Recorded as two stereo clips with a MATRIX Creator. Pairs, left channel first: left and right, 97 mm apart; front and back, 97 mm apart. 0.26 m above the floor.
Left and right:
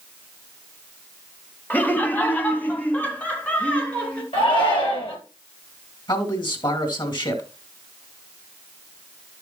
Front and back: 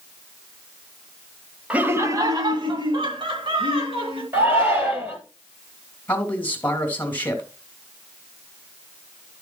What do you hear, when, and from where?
1.7 s laughter: 125° left, 0.9 m; by 4.2 s 165° left, 3 m
4.3 s a shout: 115° left, 4.5 m
6.1 s a man speaking: 70° left, 2 m